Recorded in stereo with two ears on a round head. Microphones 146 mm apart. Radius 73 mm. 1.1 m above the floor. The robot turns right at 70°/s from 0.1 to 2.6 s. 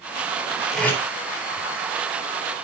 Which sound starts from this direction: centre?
Tape being pulled, at 0.7 s.